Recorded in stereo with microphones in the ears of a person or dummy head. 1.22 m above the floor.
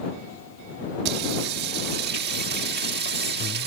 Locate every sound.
1.1 s singing: 55° right (ahead or behind)